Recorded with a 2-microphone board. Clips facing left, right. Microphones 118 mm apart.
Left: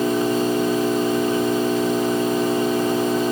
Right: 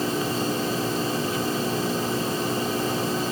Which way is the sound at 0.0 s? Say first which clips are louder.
Left 6 dB; 35° left (ahead or behind).